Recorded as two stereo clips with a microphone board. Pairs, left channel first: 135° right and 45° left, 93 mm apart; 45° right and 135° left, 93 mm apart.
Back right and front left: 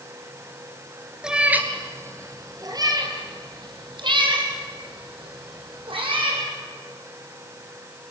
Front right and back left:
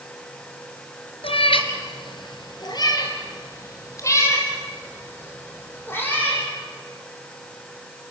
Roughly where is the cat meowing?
Ahead right.